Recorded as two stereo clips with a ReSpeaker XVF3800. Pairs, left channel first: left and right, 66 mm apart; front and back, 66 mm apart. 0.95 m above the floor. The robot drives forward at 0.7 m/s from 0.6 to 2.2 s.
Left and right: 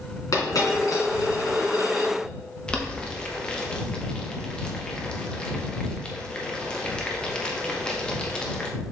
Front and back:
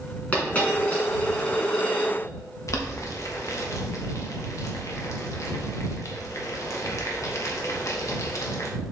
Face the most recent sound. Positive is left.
turn(degrees=15)